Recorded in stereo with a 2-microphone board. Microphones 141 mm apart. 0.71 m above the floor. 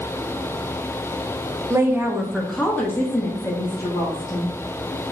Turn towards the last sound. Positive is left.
turn(degrees=35)  # may be behind; listen again after turning